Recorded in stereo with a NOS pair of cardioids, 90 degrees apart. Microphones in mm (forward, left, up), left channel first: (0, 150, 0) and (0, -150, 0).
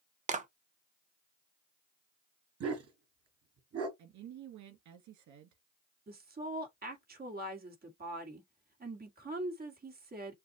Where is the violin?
I don't hear a violin.